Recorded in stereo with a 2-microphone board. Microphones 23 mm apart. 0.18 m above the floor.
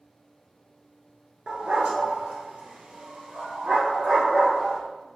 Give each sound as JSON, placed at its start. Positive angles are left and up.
{"t": 1.5, "sound": "a dog barking", "side_deg": -50, "distance_m": 0.9}